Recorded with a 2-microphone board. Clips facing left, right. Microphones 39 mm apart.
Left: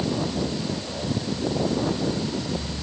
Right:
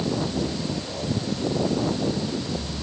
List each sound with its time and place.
Only background noise.